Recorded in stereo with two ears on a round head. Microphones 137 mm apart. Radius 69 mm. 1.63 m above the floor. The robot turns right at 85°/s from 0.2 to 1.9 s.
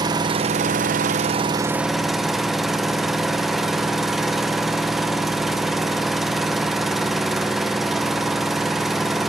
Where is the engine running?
145° right, 0.8 m; by 9.3 s straight ahead, 0.8 m.